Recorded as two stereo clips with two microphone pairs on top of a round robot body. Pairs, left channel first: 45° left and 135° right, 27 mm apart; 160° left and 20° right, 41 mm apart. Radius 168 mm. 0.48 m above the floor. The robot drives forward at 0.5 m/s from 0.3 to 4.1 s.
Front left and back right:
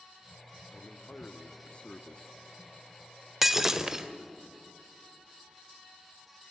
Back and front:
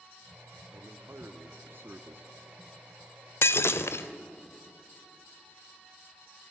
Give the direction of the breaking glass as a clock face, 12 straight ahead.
7 o'clock.